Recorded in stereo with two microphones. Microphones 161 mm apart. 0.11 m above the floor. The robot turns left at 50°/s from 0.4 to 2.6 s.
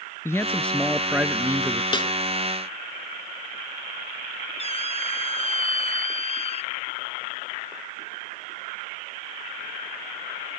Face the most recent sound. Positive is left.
turn(degrees=40)  # may be behind; listen again after turning